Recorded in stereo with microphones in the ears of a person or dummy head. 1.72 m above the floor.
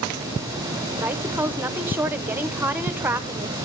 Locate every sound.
1.0 s a woman speaking: 10° right (ahead or behind), 1.0 m